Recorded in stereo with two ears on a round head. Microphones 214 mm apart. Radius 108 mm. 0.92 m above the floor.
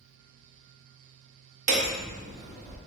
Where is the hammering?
30° right (ahead or behind), 0.6 m.